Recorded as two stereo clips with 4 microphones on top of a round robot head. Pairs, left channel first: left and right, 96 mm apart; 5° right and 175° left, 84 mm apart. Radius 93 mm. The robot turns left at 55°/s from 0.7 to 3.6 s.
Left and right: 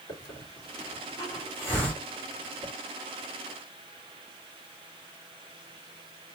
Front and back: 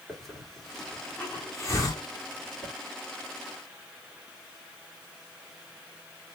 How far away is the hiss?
About 1.9 m.